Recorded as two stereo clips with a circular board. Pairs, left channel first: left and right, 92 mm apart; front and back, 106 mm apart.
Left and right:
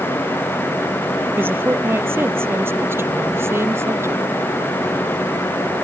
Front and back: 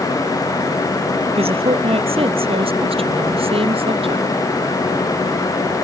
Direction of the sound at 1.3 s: 155° right.